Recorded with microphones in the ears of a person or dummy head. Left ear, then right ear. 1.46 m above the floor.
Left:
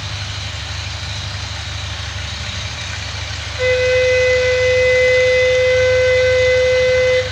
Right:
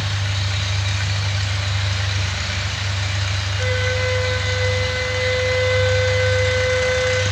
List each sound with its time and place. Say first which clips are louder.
0.0 s an engine running: even; 70° left (ahead or behind), 4 m
3.6 s a flute: left 10 dB; 65° left (ahead or behind), 0.8 m